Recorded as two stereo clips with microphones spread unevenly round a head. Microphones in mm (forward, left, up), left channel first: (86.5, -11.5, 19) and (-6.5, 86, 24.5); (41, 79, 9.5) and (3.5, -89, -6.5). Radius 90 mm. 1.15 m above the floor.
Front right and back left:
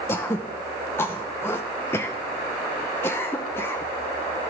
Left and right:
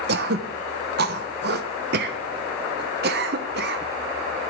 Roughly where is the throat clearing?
Behind right.